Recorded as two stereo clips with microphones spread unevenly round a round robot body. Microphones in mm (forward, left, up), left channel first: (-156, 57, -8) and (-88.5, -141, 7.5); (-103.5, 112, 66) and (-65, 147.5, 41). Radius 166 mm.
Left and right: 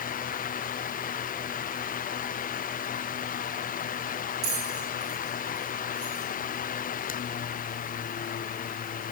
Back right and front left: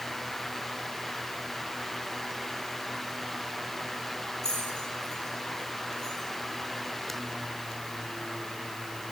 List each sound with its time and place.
4.4 s a bell: 65° right, 7 m